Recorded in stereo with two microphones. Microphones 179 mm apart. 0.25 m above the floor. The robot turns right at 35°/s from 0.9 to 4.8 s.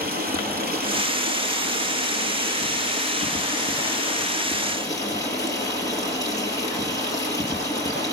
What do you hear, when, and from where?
0.0 s running water: 115° right, 4 m; by 8.1 s 20° left, 4 m